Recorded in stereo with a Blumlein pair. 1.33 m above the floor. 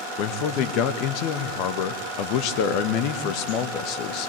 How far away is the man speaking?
About 1.7 m.